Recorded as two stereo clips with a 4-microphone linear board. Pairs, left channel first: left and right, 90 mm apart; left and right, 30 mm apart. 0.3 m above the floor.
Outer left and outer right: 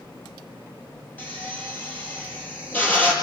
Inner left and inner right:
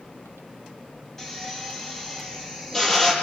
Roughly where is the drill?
Left.